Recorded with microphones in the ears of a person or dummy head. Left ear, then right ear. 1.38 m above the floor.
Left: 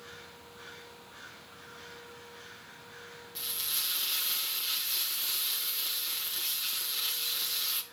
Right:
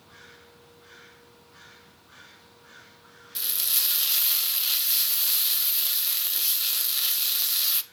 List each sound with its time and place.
3.4 s frying: 25° right (ahead or behind), 1.5 m